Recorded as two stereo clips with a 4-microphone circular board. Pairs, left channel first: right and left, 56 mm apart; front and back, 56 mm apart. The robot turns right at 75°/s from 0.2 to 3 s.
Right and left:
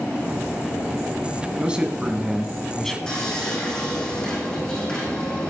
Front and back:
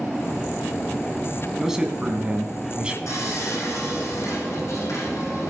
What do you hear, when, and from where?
1.6 s a man speaking: 105° left, 1.5 m; by 3.0 s 150° right, 1.5 m
3.1 s sawing: 15° right, 7.5 m